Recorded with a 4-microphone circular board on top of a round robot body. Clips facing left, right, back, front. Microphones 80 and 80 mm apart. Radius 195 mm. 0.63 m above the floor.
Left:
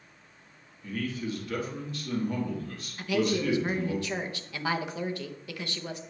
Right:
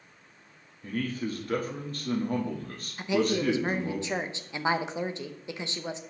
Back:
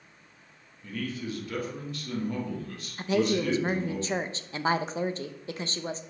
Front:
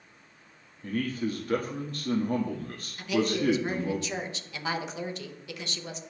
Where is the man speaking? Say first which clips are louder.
Right 1 dB, front 4 dB; 45° right, 1.4 m.